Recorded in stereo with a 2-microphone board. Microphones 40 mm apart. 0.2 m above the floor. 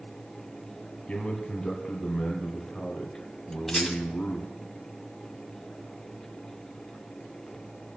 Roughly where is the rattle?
Centre.